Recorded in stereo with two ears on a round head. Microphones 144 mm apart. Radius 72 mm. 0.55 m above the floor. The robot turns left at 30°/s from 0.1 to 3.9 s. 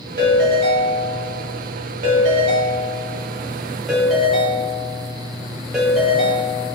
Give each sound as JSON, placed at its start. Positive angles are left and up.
{"t": 0.2, "sound": "a ringtone", "azimuth_deg": -65, "distance_m": 1.2}